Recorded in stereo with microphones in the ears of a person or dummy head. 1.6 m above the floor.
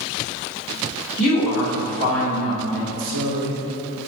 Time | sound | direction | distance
1.2 | a woman speaking | 5° left (ahead or behind) | 1.6 m
2.9 | a man speaking | 75° right (ahead or behind) | 0.7 m